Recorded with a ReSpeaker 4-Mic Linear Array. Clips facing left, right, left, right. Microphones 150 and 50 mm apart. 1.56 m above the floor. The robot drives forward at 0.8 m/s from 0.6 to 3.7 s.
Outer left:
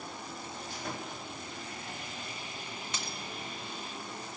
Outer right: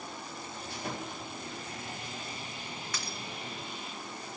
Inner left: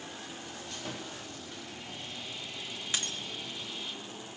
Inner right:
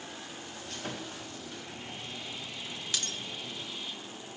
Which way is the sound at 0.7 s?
65° right (ahead or behind).